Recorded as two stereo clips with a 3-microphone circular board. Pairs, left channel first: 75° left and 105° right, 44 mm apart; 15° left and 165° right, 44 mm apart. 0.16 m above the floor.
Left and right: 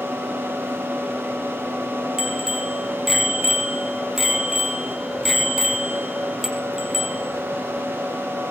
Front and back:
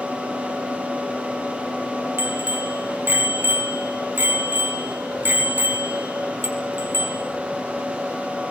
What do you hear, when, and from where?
2.2 s a bicycle bell: 170° left, 4 m